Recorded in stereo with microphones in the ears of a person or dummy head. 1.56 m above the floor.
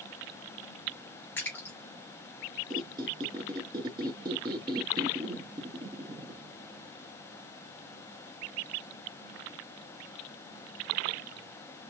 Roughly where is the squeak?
Centre.